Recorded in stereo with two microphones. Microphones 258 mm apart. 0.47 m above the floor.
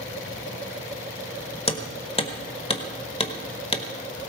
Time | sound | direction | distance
1.7 | hammering | 20° left (ahead or behind) | 1.4 m